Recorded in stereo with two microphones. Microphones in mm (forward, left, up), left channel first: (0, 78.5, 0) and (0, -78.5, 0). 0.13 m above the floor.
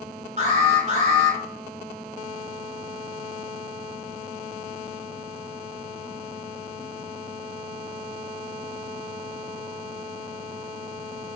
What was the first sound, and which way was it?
An alarm, 45° right (ahead or behind).